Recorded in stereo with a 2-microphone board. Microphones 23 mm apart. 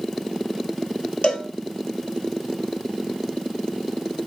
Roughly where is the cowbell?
Left.